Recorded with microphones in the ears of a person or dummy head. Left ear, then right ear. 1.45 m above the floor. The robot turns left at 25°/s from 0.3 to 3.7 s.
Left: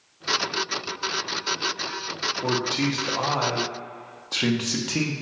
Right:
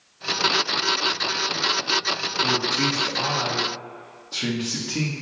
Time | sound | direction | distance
2.4 | a man speaking | 165° left | 0.7 m